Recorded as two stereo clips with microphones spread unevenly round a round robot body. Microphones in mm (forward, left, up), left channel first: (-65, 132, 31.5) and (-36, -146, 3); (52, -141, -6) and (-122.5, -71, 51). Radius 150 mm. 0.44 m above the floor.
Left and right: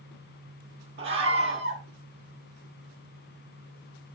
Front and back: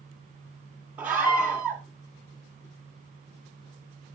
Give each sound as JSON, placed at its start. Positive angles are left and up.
{"t": 1.0, "sound": "a scream", "azimuth_deg": -110, "distance_m": 1.6}